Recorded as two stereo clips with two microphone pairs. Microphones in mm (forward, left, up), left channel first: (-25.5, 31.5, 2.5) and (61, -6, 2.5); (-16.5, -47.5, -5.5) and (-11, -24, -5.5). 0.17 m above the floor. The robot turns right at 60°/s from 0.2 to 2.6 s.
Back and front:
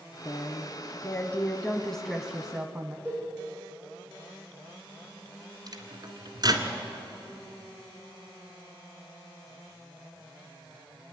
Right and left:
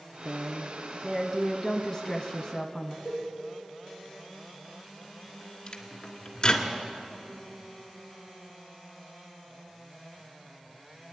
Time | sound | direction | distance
0.2 | a woman speaking | 135° left | 1.0 m
3.0 | a cowbell | 50° left | 9 m
5.7 | a microwave | 50° right | 1.9 m